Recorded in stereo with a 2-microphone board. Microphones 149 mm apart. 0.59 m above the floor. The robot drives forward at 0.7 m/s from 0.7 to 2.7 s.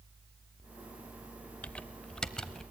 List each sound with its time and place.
1.6 s typing on a keyboard: 10° left (ahead or behind), 0.6 m; by 2.6 s 5° left (ahead or behind), 1.3 m